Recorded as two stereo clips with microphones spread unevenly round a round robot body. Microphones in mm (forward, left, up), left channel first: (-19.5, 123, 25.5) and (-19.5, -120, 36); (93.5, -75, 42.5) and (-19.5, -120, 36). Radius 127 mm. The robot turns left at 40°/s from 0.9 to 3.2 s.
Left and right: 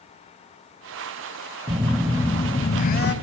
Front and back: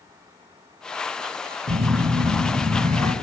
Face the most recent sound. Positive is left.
turn(degrees=135)